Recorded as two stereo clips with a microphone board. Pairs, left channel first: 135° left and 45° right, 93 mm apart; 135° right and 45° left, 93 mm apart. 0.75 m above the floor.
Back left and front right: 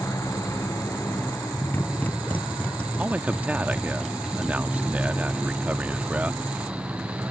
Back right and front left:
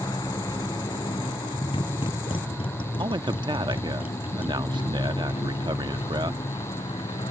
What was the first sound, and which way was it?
A motorcycle, 170° right.